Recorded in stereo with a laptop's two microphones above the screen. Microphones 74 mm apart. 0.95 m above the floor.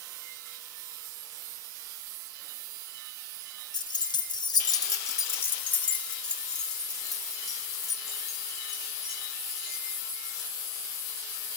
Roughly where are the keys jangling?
Left.